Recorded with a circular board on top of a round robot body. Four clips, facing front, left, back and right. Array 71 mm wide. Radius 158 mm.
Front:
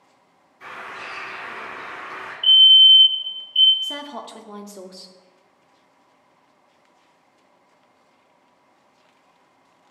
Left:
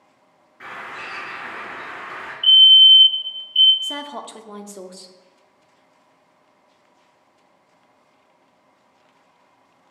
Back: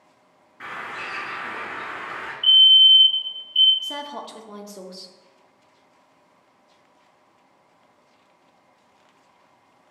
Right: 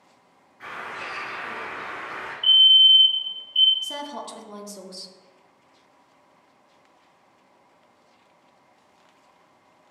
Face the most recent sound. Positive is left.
turn(degrees=75)